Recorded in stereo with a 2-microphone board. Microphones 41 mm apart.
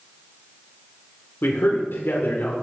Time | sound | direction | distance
1.4 | a man speaking | 60° left (ahead or behind) | 2 m